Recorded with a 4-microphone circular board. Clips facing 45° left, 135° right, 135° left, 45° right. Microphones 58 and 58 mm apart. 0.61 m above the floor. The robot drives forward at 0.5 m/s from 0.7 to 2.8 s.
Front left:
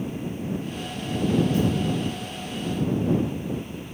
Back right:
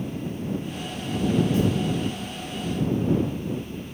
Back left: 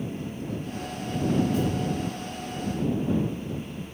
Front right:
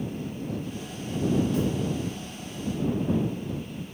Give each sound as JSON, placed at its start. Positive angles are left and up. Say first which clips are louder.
{"t": 1.5, "sound": "a thud", "louder": "even, even", "azimuth_deg": -70, "distance_m": 6.5}